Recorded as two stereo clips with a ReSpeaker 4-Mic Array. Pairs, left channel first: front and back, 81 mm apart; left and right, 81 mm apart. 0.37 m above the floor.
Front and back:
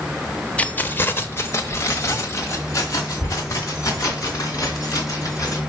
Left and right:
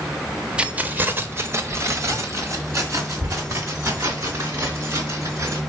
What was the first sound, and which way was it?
Keys jangling, 40° right.